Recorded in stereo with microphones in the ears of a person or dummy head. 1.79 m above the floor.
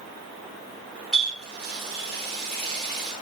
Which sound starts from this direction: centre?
A running tap, at 1.1 s.